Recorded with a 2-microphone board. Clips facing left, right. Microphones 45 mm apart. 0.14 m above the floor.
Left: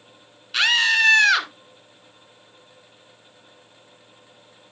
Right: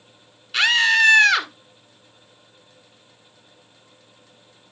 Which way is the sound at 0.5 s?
Centre (ahead or behind).